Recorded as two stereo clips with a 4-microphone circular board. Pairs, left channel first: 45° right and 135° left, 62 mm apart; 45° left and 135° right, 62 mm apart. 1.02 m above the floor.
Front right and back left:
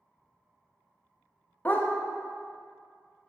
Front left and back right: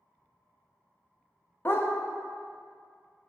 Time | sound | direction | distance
1.6 | a dog barking | 5° left | 0.5 m